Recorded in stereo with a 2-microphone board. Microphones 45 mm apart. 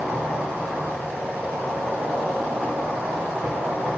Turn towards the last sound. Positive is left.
turn(degrees=-40)  # may be behind; listen again after turning